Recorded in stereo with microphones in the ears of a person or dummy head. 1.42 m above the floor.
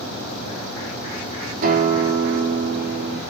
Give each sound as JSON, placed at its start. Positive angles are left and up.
{"t": 1.6, "sound": "a guitar", "side_deg": -50, "distance_m": 3.0}